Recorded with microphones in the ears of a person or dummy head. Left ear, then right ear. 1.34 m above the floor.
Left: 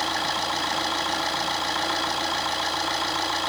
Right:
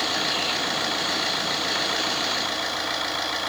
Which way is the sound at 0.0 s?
30° right (ahead or behind).